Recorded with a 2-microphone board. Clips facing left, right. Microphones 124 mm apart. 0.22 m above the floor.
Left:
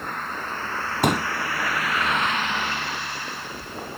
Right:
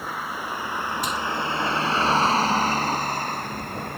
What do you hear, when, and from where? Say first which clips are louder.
0.0 s a vehicle: even; 5° right (ahead or behind); by 4.0 s 60° right (ahead or behind)
1.0 s a pop: left 6 dB; 65° left (ahead or behind)